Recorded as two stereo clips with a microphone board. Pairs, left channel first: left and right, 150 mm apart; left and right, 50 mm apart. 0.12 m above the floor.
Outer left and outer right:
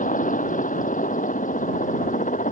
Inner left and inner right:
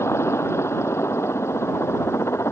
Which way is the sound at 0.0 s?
60° left (ahead or behind).